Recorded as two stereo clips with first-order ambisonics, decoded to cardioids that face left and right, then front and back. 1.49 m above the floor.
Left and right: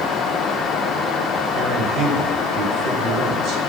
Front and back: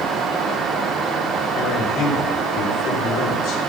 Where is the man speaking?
45° right, 7 m.